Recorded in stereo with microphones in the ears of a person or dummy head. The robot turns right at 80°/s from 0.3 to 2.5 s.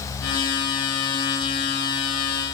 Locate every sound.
Only background noise.